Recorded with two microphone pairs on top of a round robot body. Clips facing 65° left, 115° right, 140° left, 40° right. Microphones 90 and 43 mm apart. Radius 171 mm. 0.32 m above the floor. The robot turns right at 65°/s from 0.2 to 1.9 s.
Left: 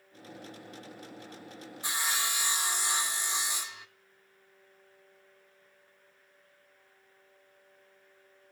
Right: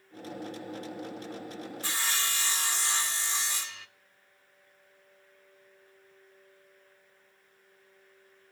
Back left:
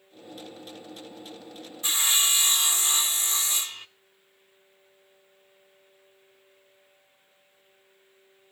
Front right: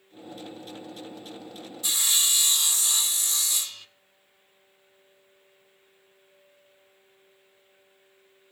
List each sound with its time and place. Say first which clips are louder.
1.8 s sawing: left 2 dB, back left 2 dB; 125° left, 1.4 m; by 3.9 s 130° left, 1.4 m